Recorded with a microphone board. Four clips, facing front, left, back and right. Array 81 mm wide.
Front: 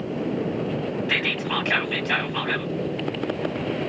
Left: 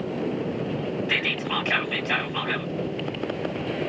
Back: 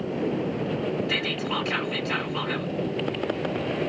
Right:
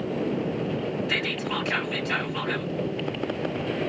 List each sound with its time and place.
1.1 s whispering: 30° left, 1.9 m